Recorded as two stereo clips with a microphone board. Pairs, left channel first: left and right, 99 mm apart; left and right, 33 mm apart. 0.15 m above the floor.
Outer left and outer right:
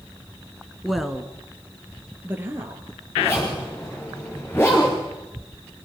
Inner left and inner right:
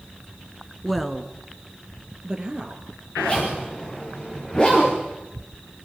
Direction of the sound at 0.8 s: Centre (ahead or behind).